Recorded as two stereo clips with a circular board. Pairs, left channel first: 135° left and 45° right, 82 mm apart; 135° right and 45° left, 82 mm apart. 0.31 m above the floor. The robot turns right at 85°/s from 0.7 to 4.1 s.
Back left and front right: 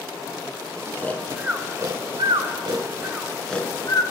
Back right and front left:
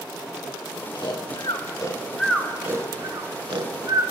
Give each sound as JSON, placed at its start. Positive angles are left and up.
{"t": 0.9, "sound": "snoring", "azimuth_deg": -165, "distance_m": 0.6}